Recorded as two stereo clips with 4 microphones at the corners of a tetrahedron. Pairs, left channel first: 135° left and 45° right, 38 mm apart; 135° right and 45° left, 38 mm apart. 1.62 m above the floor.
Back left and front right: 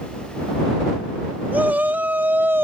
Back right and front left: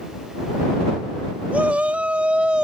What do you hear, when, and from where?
1.5 s a shout: 5° right; by 2.6 s 20° right